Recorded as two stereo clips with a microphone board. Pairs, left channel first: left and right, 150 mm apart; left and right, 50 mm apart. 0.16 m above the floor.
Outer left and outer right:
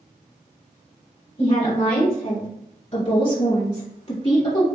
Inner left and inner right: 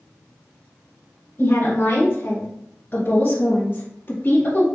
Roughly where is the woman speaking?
Left.